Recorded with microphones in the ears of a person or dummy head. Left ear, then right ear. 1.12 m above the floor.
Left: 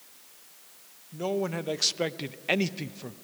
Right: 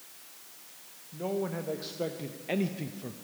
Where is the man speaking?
85° left, 1.1 m; by 3.1 s 20° left (ahead or behind), 0.6 m.